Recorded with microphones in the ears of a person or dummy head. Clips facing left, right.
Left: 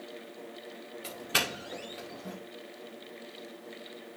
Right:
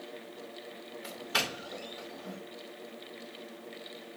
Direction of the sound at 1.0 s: 30° left (ahead or behind).